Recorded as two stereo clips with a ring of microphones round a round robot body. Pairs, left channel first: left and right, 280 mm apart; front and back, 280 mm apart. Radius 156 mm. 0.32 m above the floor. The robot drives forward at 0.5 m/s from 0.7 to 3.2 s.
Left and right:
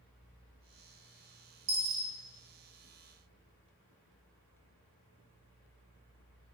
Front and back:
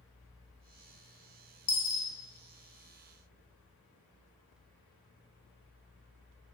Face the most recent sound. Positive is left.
turn(degrees=-70)